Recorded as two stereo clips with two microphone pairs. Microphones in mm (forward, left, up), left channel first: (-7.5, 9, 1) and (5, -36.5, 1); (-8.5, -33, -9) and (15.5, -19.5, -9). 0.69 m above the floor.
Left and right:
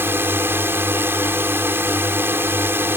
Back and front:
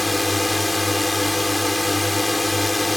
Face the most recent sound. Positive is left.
turn(degrees=-65)